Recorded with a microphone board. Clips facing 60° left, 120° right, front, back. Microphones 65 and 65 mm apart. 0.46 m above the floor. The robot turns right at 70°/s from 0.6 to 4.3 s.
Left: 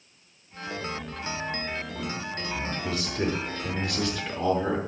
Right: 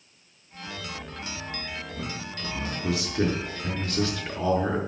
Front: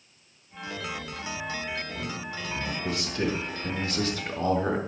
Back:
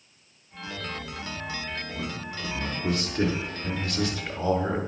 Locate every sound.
2.0 s a man speaking: 160° left, 6 m; by 4.8 s 35° right, 6 m